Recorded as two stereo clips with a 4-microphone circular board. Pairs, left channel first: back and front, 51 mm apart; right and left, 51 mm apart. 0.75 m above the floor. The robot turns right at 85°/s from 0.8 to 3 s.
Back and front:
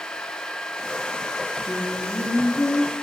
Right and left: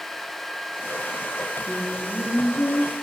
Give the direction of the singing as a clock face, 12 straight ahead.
7 o'clock.